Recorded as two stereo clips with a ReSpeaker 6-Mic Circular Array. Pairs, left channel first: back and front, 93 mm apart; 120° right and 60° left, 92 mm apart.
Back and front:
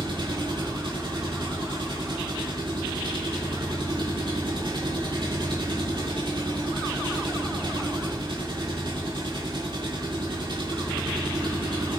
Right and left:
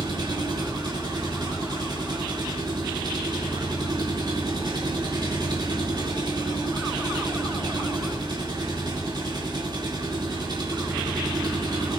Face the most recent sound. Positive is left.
turn(degrees=20)